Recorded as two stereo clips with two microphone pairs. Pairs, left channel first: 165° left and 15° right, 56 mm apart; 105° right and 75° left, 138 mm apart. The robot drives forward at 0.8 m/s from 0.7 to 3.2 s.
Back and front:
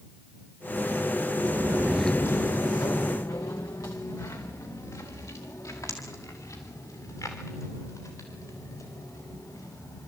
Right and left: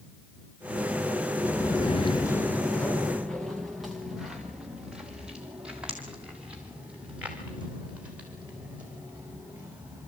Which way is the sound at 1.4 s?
30° right.